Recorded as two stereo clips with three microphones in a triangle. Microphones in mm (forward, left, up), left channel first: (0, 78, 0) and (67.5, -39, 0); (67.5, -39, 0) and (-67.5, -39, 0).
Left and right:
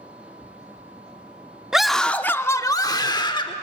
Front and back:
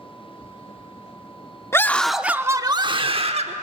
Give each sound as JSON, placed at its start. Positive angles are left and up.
{"t": 1.7, "sound": "a scream", "azimuth_deg": 20, "distance_m": 0.7}